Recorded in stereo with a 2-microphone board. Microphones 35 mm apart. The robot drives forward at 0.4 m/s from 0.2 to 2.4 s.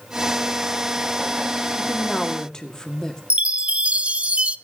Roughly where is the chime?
Right.